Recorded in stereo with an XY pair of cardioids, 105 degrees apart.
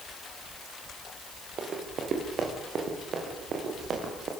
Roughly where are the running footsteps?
Ahead right.